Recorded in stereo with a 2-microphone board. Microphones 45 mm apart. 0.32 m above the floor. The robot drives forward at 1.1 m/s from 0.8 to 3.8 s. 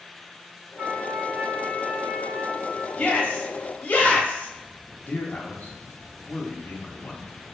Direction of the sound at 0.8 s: 40° right (ahead or behind).